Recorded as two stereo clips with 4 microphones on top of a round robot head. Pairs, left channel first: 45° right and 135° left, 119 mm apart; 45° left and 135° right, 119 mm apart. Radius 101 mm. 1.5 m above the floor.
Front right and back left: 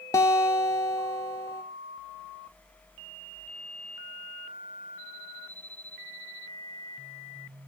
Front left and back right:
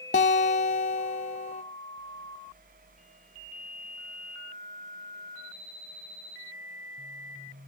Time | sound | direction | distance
0.1 | a guitar | 20° left | 0.6 m